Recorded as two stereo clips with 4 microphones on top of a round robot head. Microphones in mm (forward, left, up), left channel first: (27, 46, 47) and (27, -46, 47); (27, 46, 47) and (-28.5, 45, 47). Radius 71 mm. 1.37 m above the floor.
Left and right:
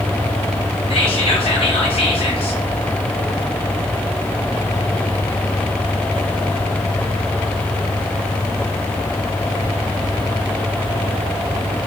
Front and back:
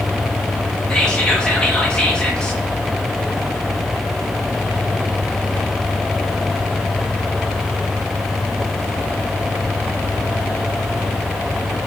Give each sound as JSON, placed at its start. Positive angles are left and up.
{"t": 0.9, "sound": "whispering", "azimuth_deg": 75, "distance_m": 1.4}